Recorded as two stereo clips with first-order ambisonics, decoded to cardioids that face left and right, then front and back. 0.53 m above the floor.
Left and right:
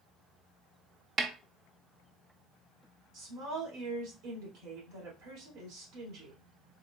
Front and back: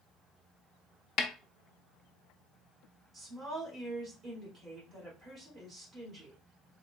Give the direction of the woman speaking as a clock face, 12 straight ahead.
4 o'clock.